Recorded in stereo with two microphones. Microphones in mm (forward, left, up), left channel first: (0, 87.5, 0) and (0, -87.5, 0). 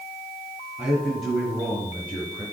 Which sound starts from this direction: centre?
A man speaking, at 0.8 s.